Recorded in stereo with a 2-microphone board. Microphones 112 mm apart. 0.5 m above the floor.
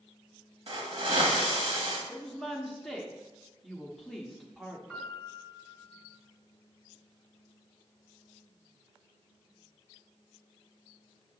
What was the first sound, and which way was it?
A hiss, 60° right (ahead or behind).